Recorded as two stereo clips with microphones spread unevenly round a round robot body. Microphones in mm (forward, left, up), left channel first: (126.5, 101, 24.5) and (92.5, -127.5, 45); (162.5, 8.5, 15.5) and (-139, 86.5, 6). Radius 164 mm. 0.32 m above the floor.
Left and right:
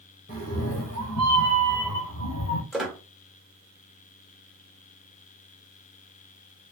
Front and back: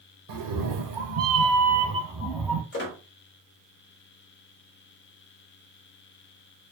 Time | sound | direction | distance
0.3 | a cat meowing | 145° left | 1.2 m
2.7 | a squeak | 5° right | 1.0 m